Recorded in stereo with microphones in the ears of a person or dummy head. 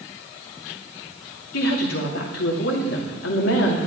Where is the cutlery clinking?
I don't hear cutlery clinking.